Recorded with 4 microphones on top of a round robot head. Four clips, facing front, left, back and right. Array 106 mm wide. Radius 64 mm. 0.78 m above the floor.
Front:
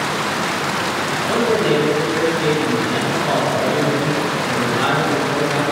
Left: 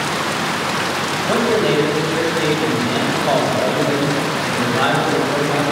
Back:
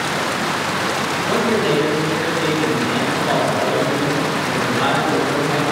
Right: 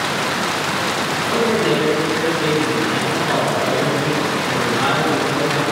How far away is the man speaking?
About 5 m.